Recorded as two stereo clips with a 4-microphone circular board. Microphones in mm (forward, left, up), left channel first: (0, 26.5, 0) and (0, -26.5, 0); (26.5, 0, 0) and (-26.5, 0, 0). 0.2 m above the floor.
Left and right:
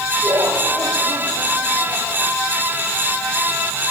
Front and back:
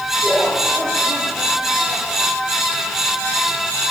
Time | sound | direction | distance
0.2 | laughter | 80° right | 4.5 m